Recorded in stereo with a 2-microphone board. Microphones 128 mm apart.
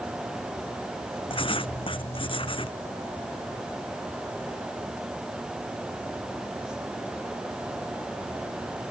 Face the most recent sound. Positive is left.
turn(degrees=45)  # may be behind; listen again after turning